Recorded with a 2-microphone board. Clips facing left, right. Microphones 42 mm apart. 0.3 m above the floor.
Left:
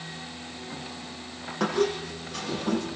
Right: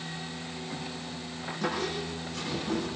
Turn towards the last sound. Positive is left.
turn(degrees=75)  # may be behind; listen again after turning